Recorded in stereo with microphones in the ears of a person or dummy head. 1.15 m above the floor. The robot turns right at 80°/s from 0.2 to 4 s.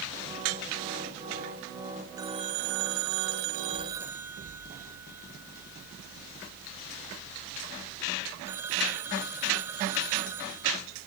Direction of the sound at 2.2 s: 165° right.